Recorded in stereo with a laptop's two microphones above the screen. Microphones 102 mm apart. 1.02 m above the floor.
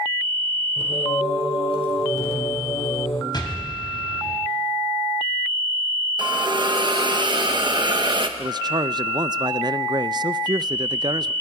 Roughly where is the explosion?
Left.